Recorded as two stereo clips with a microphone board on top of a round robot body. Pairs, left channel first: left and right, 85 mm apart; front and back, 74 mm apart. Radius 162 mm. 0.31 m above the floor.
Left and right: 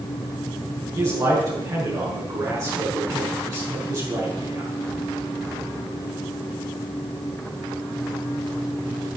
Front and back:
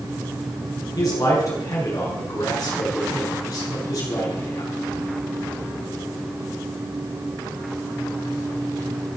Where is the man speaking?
50° right, 6 m.